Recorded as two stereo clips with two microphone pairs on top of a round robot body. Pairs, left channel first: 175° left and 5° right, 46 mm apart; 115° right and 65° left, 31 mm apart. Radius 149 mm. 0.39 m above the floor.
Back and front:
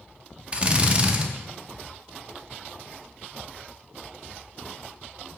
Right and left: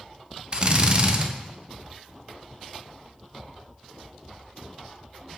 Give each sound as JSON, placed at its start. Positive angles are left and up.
{"t": 0.5, "sound": "a drill", "azimuth_deg": 45, "distance_m": 0.6}